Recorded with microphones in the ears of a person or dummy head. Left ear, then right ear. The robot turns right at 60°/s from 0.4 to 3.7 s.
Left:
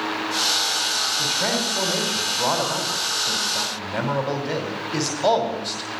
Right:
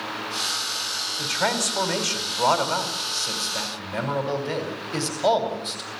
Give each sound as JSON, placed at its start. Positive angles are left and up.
{"t": 1.2, "sound": "a man speaking", "azimuth_deg": -160, "distance_m": 5.0}